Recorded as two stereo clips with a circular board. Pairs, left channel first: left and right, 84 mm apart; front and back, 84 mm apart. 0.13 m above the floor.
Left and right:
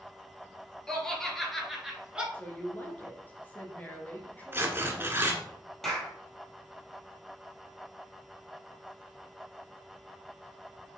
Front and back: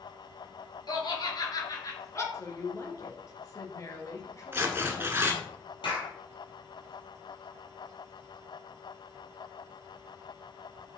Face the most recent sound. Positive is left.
turn(degrees=5)